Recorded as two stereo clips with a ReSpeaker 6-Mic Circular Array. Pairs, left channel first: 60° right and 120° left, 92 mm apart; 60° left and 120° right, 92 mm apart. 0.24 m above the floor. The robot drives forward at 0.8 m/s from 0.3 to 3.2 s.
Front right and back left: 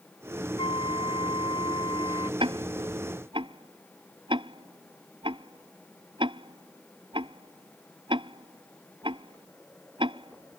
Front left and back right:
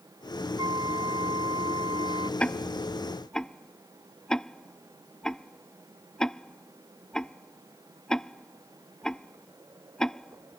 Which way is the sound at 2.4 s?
135° left.